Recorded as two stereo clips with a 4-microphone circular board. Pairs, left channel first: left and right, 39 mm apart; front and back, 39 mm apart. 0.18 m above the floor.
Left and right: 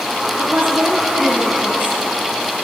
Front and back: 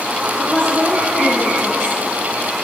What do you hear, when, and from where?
0.4 s a woman speaking: 55° right, 2.5 m